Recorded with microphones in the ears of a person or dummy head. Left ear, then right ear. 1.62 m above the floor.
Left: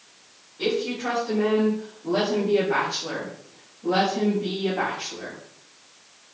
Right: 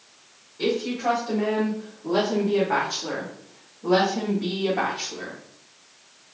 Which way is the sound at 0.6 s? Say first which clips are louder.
Right 1 dB; 15° right (ahead or behind).